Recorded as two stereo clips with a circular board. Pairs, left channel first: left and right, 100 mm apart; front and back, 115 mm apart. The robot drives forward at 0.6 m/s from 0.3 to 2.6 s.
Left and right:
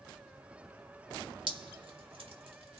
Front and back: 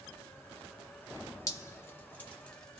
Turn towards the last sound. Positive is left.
turn(degrees=-85)